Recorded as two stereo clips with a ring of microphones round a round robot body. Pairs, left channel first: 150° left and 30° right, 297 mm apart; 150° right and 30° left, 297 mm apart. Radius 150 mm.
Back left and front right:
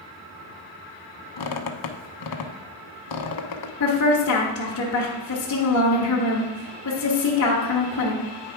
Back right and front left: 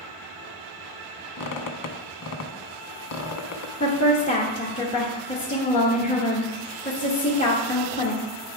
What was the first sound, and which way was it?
A squeak, 170° left.